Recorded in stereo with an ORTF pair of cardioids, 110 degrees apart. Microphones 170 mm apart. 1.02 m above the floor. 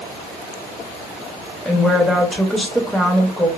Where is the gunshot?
I don't hear a gunshot.